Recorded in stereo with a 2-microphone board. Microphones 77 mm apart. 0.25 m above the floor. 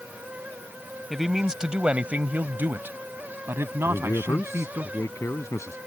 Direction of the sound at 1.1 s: Centre (ahead or behind).